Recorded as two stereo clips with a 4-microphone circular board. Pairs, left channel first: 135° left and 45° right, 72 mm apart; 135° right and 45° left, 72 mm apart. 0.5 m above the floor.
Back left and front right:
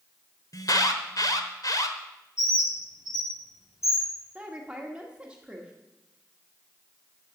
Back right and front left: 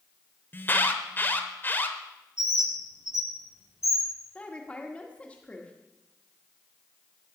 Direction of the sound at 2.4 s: Straight behind.